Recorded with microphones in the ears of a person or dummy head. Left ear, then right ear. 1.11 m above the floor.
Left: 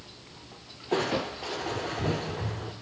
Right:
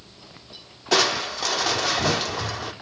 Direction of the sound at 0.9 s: 55° right (ahead or behind).